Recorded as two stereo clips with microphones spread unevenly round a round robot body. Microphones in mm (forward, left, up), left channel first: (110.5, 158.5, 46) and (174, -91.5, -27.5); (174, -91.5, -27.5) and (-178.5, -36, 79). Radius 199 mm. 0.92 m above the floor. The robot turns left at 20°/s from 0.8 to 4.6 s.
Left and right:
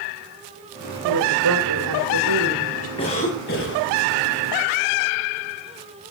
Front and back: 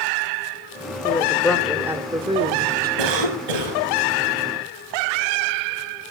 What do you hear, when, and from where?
1.0 s a woman speaking: 85° right, 3 m; by 2.9 s 125° right, 3 m
3.0 s a cough: 175° right, 6 m; by 3.8 s 165° left, 6 m